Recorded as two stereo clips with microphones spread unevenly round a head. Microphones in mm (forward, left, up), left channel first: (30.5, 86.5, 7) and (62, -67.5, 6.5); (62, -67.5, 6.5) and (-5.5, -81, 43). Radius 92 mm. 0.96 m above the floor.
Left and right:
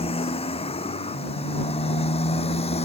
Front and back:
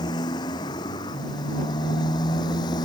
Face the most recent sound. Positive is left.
turn(degrees=50)